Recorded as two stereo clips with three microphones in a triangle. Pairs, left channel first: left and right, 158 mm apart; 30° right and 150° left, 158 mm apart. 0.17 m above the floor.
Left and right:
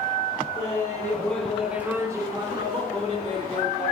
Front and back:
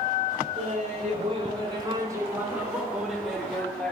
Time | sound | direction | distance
0.6 | laughter | 145° left | 2.5 m